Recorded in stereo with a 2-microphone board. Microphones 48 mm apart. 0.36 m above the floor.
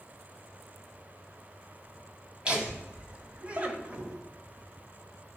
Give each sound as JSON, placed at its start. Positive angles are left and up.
{"t": 2.5, "sound": "laughter", "side_deg": -20, "distance_m": 2.0}